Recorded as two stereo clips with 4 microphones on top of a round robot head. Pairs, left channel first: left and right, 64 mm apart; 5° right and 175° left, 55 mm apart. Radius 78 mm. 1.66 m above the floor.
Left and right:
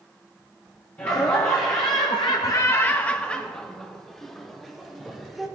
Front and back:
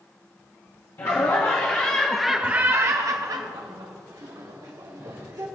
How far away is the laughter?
About 1.0 m.